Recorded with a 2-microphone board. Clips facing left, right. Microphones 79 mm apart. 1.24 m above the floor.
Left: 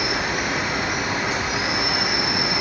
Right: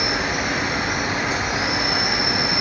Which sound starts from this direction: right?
An insect, at 0.0 s.